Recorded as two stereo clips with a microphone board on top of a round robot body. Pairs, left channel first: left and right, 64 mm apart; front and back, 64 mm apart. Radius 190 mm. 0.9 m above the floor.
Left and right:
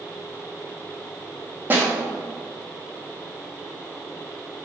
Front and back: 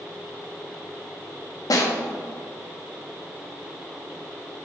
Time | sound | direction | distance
1.7 | a snare drum | 30° right | 1.1 m